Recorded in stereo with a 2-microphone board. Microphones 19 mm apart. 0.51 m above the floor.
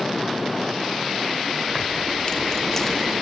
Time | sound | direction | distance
1.7 | keys jangling | 55° left (ahead or behind) | 1.2 m